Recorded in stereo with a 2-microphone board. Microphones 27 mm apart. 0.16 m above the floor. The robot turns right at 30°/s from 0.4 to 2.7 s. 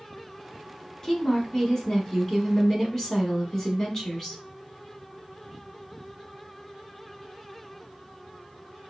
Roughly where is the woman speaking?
Left.